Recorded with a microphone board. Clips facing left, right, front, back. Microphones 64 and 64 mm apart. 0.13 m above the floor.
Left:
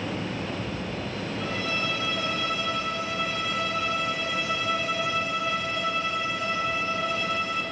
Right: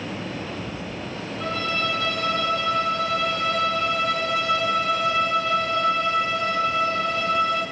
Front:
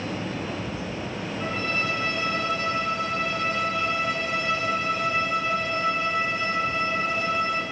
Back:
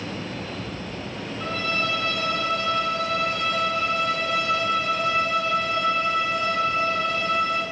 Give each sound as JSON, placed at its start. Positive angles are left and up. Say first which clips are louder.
{"t": 1.4, "sound": "a violin", "louder": "right 5 dB, back 2 dB", "azimuth_deg": -75, "distance_m": 9.0}